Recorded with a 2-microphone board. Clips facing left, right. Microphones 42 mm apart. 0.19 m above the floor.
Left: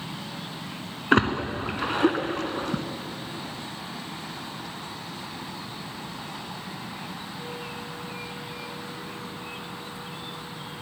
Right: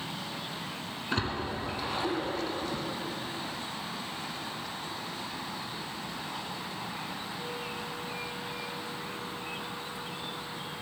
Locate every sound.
1.1 s a splash: 65° left (ahead or behind), 0.5 m